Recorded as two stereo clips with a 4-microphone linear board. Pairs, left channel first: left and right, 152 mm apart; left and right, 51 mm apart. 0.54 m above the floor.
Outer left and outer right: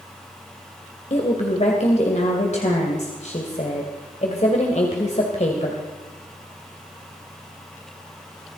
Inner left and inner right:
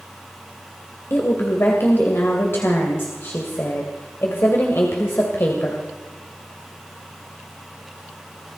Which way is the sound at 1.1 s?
50° left (ahead or behind).